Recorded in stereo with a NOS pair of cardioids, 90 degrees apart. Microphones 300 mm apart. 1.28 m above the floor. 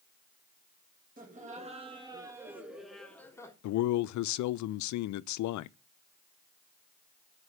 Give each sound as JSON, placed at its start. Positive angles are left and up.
{"t": 1.2, "sound": "laughter", "azimuth_deg": -30, "distance_m": 2.5}
{"t": 3.6, "sound": "a man speaking", "azimuth_deg": 70, "distance_m": 0.6}